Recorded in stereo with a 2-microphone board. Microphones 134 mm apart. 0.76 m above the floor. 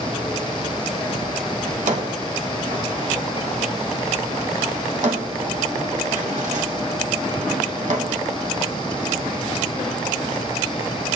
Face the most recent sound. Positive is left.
turn(degrees=-70)  # may be behind; listen again after turning